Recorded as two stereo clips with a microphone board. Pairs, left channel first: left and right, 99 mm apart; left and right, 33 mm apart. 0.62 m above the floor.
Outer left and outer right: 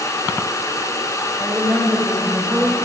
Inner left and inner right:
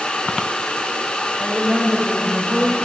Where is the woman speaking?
10° right (ahead or behind), 3.5 m; by 2.8 s 10° left (ahead or behind), 2 m.